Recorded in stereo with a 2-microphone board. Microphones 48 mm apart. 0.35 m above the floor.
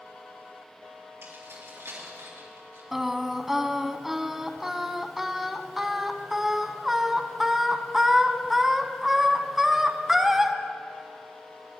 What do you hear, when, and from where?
1.2 s keys jangling: 75° right (ahead or behind), 4 m; by 2.8 s 80° right, 4.5 m
2.9 s singing: 10° right (ahead or behind), 0.6 m